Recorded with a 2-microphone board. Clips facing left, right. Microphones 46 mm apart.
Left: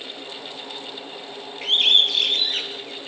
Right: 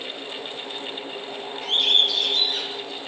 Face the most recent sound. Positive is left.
turn(degrees=45)  # may be behind; listen again after turning